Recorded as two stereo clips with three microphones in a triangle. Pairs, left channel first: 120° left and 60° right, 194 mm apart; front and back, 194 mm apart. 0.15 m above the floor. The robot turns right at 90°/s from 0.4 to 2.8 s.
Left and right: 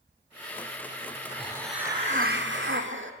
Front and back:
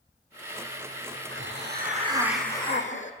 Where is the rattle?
I don't hear a rattle.